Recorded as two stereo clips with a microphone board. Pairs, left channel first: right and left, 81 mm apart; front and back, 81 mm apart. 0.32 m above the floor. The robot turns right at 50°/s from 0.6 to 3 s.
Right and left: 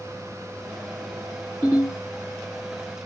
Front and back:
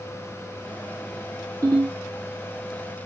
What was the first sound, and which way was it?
A ringtone, 125° left.